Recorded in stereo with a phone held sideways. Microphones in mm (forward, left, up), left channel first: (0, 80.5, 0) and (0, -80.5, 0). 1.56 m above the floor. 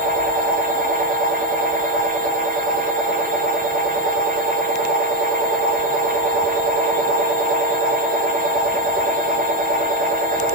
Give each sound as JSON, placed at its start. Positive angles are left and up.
{"t": 0.0, "sound": "a machine running", "side_deg": -60, "distance_m": 1.0}